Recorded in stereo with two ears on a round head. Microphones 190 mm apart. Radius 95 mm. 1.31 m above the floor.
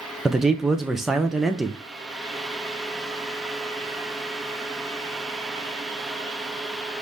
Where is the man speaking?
Centre (ahead or behind), 0.5 m.